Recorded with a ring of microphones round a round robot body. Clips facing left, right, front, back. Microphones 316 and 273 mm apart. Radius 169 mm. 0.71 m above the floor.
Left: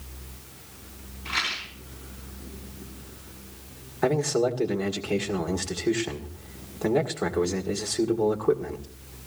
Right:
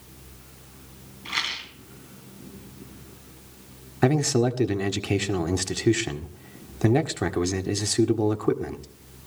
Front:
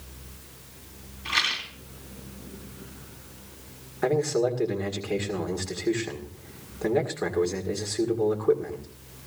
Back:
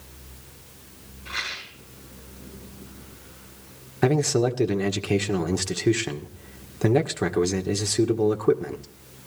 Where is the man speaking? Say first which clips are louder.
Right 2 dB, back 2 dB; 130° right, 1.8 m.